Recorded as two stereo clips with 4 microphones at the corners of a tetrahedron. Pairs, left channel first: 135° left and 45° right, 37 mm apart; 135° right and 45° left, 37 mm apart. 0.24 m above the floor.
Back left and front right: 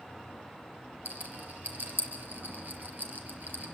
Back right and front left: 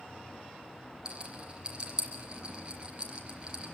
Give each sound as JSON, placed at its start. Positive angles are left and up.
{"t": 1.1, "sound": "a rattle", "azimuth_deg": -15, "distance_m": 4.0}